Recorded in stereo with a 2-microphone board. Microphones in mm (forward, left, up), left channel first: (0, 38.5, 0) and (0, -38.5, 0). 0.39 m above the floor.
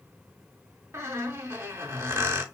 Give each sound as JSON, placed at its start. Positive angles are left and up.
{"t": 0.9, "sound": "a squeak", "side_deg": -30, "distance_m": 0.8}